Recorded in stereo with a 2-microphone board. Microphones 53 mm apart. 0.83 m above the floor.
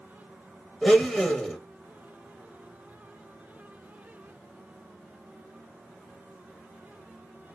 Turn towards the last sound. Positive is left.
turn(degrees=5)  # may be behind; listen again after turning